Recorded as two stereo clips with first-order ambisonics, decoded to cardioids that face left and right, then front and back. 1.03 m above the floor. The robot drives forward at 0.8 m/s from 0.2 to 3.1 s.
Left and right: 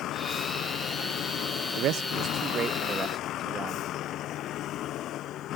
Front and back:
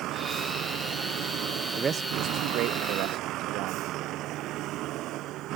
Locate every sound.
0.0 s a vehicle: 135° left
1.8 s a man speaking: 110° right; by 3.9 s 165° right